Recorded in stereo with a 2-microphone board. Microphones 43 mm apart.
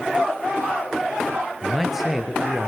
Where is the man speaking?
5° right (ahead or behind), 4.5 m; by 2.7 s 10° right (ahead or behind), 4 m.